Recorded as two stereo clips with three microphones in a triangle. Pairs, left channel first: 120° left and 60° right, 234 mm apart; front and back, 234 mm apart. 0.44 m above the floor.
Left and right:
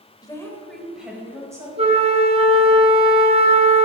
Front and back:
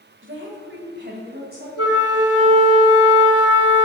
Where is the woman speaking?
170° right, 1.3 m; by 1.7 s 135° right, 2 m.